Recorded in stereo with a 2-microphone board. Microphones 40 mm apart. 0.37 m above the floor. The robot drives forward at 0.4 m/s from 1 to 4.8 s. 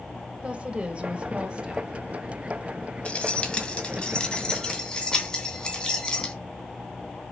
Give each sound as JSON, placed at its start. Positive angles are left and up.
{"t": 0.4, "sound": "a woman speaking", "side_deg": -30, "distance_m": 1.6}
{"t": 3.0, "sound": "keys jangling", "side_deg": 30, "distance_m": 1.4}